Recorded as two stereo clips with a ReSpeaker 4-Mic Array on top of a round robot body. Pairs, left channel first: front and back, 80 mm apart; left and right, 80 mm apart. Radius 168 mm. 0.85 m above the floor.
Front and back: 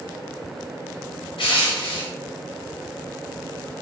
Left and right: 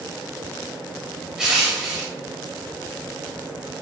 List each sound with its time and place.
1.4 s crushing: 10° right, 1.1 m